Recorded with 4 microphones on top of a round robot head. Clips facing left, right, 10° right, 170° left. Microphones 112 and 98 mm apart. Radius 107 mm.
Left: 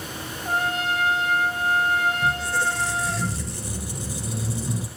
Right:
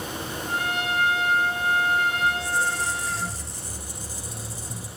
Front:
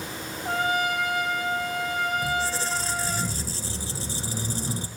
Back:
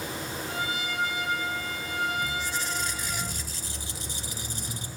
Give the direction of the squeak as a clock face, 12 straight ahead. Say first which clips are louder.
Left 1 dB, front 5 dB; 11 o'clock.